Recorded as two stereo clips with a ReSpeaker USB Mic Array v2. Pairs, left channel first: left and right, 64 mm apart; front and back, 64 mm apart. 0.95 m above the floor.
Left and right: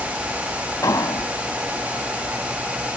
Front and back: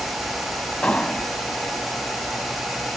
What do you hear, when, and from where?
0.8 s an explosion: 70° left